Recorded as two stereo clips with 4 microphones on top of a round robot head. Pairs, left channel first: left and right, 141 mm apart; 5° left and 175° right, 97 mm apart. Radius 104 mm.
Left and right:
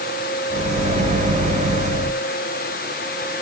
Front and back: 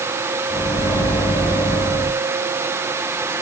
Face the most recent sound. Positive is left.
turn(degrees=-60)